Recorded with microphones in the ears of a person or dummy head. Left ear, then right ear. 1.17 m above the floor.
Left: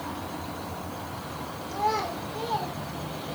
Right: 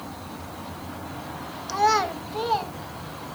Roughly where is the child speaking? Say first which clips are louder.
Right 6 dB; right.